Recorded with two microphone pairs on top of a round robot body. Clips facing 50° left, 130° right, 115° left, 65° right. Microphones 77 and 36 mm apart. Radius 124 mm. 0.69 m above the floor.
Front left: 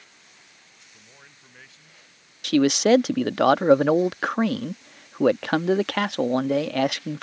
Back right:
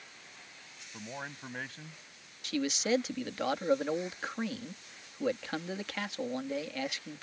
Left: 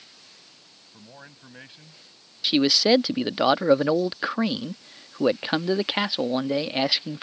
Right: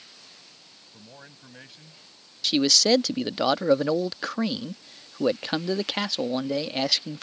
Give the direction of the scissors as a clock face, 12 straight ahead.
I don't hear scissors.